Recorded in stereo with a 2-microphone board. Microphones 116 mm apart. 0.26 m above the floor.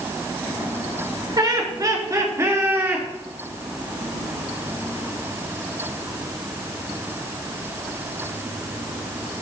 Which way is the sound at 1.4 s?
40° right (ahead or behind).